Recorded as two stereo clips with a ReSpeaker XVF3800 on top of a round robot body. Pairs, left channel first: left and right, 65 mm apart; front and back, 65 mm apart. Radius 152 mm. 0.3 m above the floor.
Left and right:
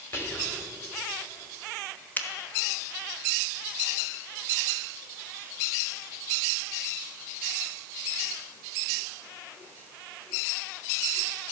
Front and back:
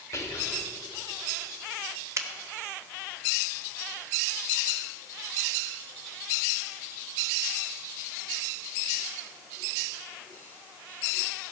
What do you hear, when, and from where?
0.1 s whispering: 40° left, 2.0 m
2.2 s a finger snap: 150° left, 1.1 m